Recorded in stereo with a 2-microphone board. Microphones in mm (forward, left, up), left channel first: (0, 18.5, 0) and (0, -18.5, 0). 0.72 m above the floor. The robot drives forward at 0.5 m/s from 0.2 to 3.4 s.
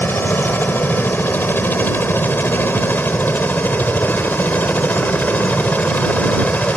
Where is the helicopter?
65° left (ahead or behind); by 6.8 s 45° left (ahead or behind).